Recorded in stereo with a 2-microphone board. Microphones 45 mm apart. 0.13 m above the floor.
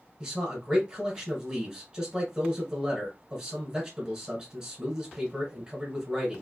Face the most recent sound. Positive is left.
turn(degrees=-15)  # may be behind; listen again after turning